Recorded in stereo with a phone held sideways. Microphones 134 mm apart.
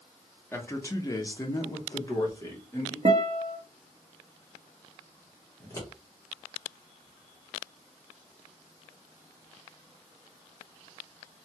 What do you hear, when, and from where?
0.5 s a man speaking: 15° left (ahead or behind), 0.6 m; by 3.0 s 20° left (ahead or behind), 1.5 m
3.0 s a guitar: 45° right (ahead or behind), 0.7 m
5.6 s scissors: 25° left (ahead or behind), 1.0 m